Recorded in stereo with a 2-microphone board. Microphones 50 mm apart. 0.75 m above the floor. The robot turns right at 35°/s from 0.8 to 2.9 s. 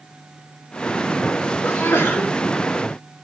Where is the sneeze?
65° left (ahead or behind), 1.7 m; by 2.3 s 50° left (ahead or behind), 1.7 m.